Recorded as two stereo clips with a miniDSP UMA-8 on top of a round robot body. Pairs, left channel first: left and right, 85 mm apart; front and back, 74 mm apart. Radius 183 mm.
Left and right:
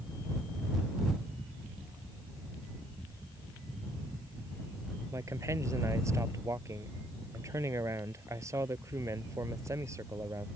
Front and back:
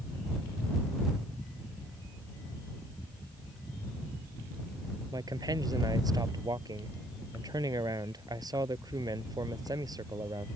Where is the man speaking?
145° right.